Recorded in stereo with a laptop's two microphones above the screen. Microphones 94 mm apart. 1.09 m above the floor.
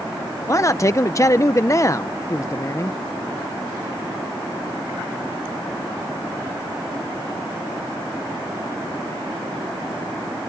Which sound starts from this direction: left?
A man speaking, at 0.5 s.